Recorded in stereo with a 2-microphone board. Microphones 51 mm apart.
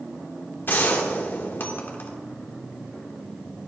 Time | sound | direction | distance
0.7 | a gunshot | 45° left (ahead or behind) | 1.5 m